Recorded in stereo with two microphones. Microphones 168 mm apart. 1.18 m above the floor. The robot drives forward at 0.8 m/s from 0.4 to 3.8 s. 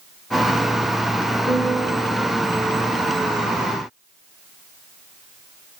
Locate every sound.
1.4 s a piano: 5° right (ahead or behind), 6.5 m